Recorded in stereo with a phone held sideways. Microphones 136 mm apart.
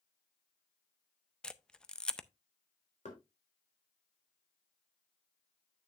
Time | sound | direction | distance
1.4 | a camera shutter | 5° left (ahead or behind) | 0.5 m
3.0 | knocking | 65° left (ahead or behind) | 3 m